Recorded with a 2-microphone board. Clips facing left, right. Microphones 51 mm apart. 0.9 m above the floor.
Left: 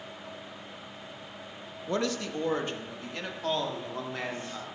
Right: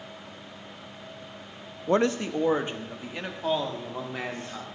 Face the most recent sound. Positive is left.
turn(degrees=-5)  # may be behind; listen again after turning